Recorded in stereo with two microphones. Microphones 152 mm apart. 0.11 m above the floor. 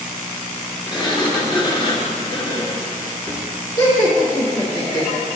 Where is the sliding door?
30° left (ahead or behind), 2 m.